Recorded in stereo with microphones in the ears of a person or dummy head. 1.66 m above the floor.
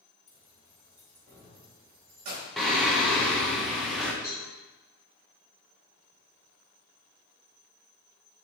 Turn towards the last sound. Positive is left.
turn(degrees=15)  # may be behind; listen again after turning